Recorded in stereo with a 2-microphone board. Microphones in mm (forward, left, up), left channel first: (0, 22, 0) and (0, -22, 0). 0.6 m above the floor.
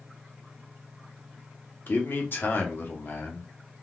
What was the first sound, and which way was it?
A man speaking, 50° left (ahead or behind).